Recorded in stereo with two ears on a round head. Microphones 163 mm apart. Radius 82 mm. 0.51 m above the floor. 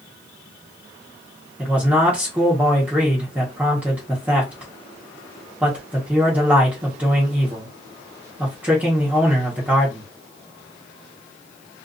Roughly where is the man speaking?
Centre.